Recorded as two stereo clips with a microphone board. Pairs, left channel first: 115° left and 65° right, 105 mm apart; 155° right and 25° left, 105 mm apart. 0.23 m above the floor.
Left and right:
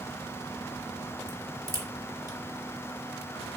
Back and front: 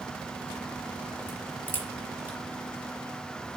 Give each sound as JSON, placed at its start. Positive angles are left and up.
{"t": 1.3, "sound": "a crack", "azimuth_deg": -90, "distance_m": 1.3}